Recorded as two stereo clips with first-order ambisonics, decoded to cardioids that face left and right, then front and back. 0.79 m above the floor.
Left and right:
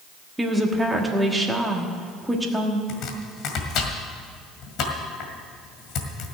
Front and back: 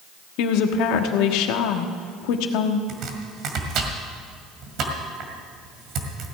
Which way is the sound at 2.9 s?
135° left.